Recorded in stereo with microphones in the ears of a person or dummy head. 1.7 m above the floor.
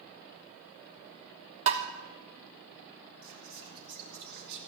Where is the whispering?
75° right (ahead or behind), 5.5 m.